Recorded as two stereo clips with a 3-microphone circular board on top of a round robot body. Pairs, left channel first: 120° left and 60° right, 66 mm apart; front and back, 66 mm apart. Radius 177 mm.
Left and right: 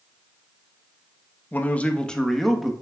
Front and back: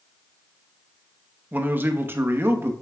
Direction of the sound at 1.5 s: 150° left.